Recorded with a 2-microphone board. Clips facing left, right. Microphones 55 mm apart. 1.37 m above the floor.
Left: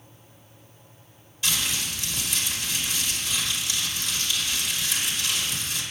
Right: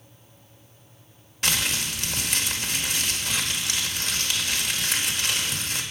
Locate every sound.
1.4 s crumpling: 60° right (ahead or behind), 1.1 m